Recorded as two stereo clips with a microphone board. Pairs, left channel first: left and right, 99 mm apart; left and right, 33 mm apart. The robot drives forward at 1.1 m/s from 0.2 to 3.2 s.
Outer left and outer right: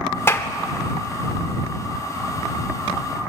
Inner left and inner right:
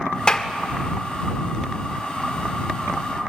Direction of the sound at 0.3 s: 25° left (ahead or behind).